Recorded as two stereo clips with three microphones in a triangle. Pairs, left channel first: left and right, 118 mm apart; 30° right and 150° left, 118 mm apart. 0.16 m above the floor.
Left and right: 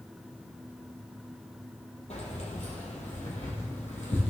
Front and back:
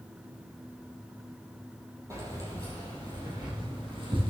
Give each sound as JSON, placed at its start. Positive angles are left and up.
{"t": 2.1, "sound": "keys jangling", "azimuth_deg": 85, "distance_m": 2.5}